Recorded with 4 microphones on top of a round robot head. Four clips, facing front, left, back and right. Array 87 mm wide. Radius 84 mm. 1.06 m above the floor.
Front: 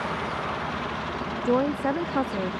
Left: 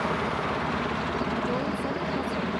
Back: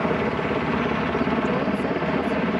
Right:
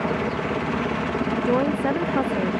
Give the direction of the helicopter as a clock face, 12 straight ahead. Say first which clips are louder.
Right 3 dB, back 6 dB; 5 o'clock.